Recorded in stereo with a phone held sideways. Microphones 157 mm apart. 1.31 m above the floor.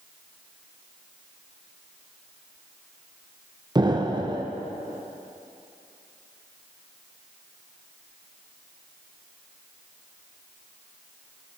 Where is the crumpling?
I don't hear crumpling.